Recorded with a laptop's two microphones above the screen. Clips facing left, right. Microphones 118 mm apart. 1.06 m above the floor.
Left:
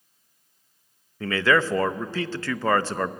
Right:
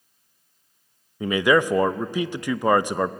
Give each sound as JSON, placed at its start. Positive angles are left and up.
{"t": 1.2, "sound": "a man speaking", "side_deg": -15, "distance_m": 0.6}